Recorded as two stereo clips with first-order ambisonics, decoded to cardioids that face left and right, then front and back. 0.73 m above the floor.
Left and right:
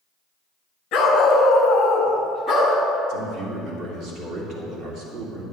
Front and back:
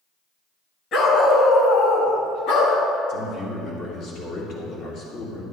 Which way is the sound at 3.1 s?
45° right.